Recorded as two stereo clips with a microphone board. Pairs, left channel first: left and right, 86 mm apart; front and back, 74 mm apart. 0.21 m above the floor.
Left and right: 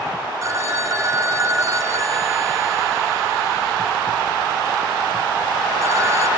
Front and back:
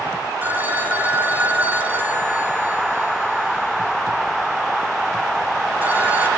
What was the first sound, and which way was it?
A phone ringing, 125° right.